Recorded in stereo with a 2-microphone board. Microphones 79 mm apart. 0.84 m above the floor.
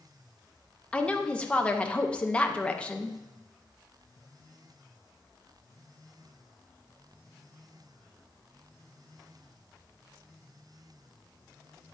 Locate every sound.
0.9 s a woman speaking: 15° left (ahead or behind), 0.8 m